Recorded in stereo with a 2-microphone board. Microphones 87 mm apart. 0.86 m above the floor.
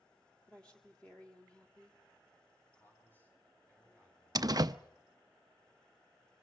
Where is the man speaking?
20° left (ahead or behind), 8 m.